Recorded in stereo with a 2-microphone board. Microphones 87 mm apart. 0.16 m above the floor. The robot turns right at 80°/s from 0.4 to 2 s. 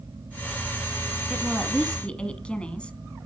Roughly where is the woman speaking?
Centre.